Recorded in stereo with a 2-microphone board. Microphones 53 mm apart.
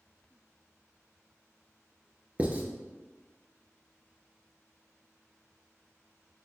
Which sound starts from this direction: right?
Writing, at 2.4 s.